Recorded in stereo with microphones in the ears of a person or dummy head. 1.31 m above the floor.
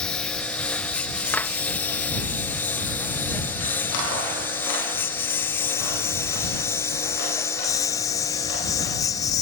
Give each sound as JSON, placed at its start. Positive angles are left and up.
{"t": 0.0, "sound": "a lawn mower", "side_deg": 5}
{"t": 1.3, "sound": "a clap", "side_deg": 10}